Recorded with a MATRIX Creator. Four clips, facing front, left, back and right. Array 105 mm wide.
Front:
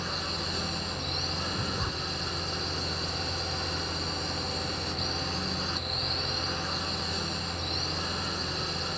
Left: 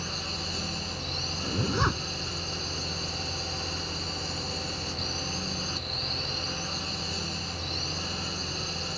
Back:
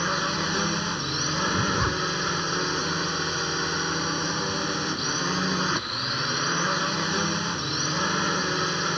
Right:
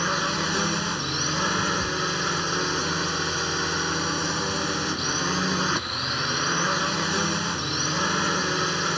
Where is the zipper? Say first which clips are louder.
Left 1 dB, back 11 dB; 115° left.